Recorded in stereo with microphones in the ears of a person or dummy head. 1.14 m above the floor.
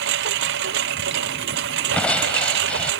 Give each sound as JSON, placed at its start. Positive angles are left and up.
{"t": 0.0, "sound": "a lawn mower", "side_deg": -65}
{"t": 1.9, "sound": "crushing", "side_deg": 10}